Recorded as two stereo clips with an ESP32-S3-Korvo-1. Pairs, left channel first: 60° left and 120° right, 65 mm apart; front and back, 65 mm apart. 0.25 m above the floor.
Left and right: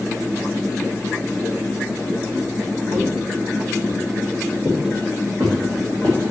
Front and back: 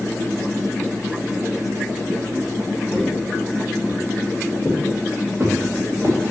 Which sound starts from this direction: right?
Footsteps, at 2.9 s.